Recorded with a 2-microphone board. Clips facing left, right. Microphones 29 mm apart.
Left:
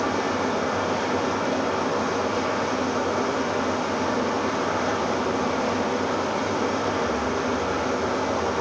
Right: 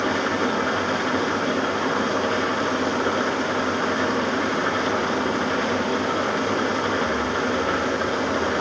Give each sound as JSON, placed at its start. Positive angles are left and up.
{"t": 0.0, "sound": "an engine running", "side_deg": -80, "distance_m": 4.0}